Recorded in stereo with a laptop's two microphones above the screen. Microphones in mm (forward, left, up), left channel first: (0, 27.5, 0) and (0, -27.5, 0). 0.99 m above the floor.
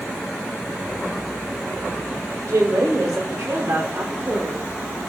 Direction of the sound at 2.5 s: 75° right (ahead or behind).